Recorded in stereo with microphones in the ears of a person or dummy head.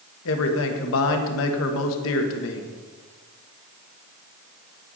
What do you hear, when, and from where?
0.2 s a man speaking: 65° left (ahead or behind), 1.4 m